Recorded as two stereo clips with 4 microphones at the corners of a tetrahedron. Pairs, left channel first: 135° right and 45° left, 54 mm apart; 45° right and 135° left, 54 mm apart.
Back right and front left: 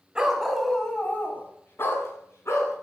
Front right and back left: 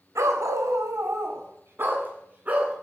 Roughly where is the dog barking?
Behind left.